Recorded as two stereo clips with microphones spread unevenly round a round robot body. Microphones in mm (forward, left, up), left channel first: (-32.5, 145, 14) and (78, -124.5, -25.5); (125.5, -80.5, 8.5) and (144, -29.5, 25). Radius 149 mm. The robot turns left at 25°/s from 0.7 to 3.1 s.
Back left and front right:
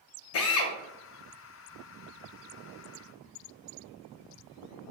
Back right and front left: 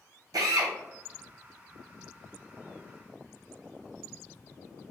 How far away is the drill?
About 0.6 m.